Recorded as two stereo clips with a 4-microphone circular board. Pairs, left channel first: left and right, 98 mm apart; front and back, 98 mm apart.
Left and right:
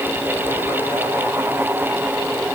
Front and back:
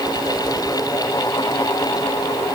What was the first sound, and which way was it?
Only background noise.